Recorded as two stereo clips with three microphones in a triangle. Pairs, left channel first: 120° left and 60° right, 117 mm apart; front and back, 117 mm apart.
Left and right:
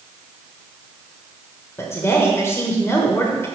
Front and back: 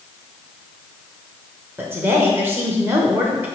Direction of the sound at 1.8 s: 140° left.